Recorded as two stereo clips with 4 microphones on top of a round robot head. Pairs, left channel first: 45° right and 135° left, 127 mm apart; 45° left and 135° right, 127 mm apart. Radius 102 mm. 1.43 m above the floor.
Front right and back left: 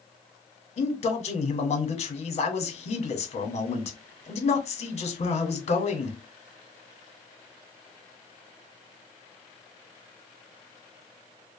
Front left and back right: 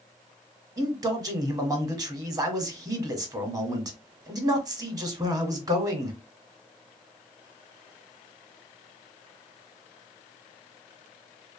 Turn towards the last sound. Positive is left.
turn(degrees=-75)